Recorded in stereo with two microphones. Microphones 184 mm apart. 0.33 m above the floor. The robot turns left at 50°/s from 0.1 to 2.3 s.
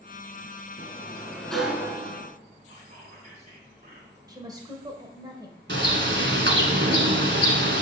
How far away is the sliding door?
About 1.2 m.